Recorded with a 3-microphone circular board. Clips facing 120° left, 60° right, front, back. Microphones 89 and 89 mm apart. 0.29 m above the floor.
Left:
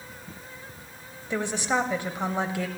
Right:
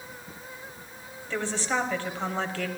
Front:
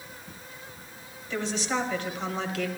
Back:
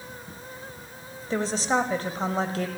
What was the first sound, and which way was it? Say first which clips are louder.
A woman speaking: left 2 dB, back 5 dB; straight behind.